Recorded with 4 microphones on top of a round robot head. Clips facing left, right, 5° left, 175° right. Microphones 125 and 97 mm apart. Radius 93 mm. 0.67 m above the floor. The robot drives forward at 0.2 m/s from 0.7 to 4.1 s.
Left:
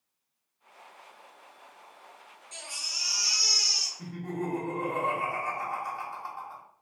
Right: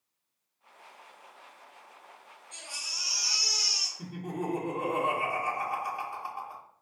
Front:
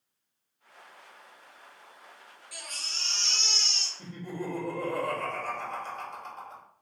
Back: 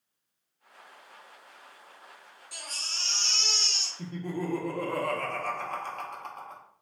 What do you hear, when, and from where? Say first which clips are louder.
2.5 s a baby crying: left 1 dB, back 1 dB; 125° left, 0.6 m; by 3.9 s 145° left, 0.8 m
4.0 s laughter: left 1 dB, back 4 dB; 165° right, 1.0 m